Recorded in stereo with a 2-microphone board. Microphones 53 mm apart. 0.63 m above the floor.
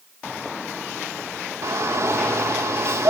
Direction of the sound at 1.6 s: 60° right (ahead or behind).